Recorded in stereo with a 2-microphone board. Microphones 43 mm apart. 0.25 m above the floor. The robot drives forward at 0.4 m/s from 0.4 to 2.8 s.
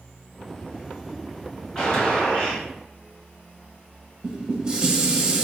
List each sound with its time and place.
1.8 s a gunshot: 15° left (ahead or behind), 1.7 m; by 2.6 s 20° left (ahead or behind), 1.6 m
4.2 s dishes clattering: 20° right (ahead or behind), 0.6 m